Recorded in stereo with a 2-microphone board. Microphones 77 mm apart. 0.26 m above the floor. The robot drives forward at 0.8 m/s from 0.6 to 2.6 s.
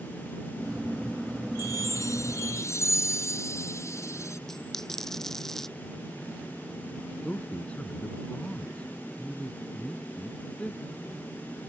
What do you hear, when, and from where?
1.6 s a chime: 45° left (ahead or behind); by 4.4 s 40° left (ahead or behind)
4.5 s a dropped coin: 5° left (ahead or behind)
7.2 s a man speaking: 15° left (ahead or behind)